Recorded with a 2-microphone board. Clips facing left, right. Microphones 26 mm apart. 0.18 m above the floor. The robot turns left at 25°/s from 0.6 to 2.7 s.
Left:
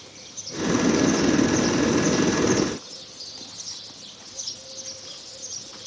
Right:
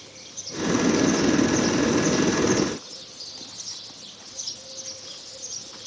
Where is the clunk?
I don't hear a clunk.